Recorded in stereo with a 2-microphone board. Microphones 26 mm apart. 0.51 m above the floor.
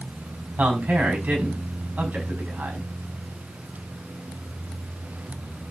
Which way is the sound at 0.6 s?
75° right (ahead or behind).